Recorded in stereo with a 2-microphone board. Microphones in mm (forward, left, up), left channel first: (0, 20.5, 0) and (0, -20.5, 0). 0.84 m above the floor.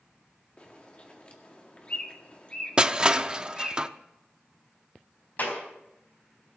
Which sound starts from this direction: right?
Crushing, at 2.8 s.